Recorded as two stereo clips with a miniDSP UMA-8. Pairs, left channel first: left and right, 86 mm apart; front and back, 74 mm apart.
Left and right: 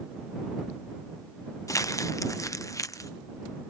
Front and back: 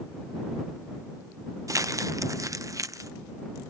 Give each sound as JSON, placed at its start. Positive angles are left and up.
{"t": 1.7, "sound": "crumpling", "azimuth_deg": 140}